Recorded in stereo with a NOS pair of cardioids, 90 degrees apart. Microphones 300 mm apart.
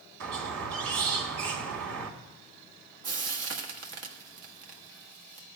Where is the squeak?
55° right, 2.5 m.